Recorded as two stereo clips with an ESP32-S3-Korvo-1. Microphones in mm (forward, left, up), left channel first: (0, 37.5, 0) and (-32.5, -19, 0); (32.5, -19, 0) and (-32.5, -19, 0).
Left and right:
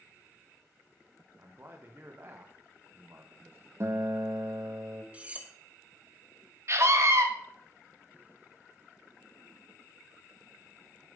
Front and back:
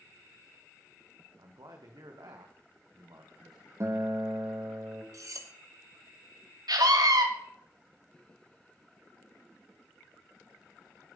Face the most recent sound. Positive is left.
turn(degrees=-165)